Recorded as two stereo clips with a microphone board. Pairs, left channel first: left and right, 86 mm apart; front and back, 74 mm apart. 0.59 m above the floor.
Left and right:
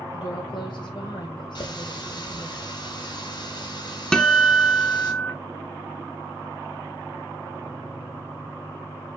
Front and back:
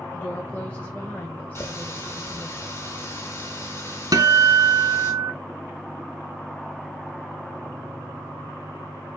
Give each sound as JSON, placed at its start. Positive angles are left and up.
{"t": 0.1, "sound": "a woman speaking", "azimuth_deg": 70, "distance_m": 1.9}
{"t": 1.6, "sound": "a running tap", "azimuth_deg": 55, "distance_m": 2.5}
{"t": 4.1, "sound": "a guitar", "azimuth_deg": 170, "distance_m": 1.2}